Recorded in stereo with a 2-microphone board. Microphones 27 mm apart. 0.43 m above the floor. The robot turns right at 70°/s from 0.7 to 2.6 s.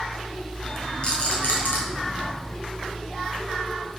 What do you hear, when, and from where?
1.0 s a rattle: 35° left (ahead or behind), 3.5 m; by 1.8 s 80° left, 3.5 m